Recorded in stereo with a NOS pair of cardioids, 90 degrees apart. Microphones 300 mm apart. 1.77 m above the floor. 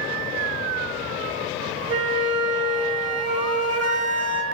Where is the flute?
55° right, 0.8 m.